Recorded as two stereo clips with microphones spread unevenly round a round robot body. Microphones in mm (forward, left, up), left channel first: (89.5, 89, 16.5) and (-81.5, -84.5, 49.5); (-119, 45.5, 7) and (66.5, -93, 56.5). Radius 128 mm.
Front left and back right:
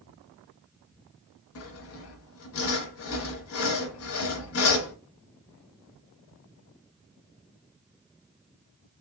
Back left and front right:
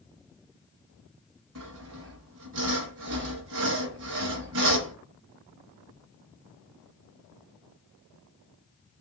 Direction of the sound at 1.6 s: 10° left.